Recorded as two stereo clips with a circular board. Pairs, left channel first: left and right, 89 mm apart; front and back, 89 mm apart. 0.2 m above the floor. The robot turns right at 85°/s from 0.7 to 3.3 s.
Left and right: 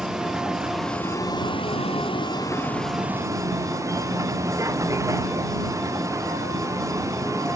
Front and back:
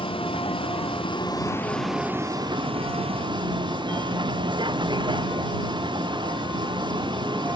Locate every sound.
0.0 s a vehicle: 10° right; by 7.5 s 150° right